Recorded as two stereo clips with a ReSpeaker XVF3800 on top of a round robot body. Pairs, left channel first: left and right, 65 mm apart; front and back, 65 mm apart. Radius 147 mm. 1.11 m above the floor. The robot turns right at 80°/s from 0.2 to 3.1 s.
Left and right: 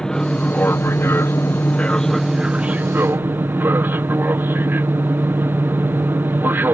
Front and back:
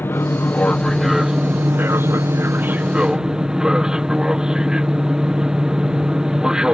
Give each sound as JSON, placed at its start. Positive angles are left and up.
{"t": 0.0, "sound": "an aircraft", "azimuth_deg": 20}